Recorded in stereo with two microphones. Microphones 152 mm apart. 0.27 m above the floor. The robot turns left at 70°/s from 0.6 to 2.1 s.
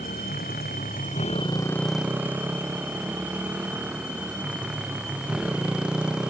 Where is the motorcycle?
90° left; by 6.3 s 5° right (ahead or behind).